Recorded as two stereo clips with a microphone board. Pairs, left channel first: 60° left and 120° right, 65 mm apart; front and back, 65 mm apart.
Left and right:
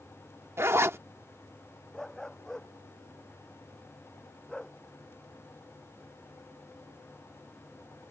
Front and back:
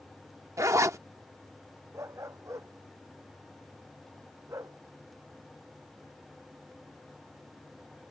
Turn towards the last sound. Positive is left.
turn(degrees=140)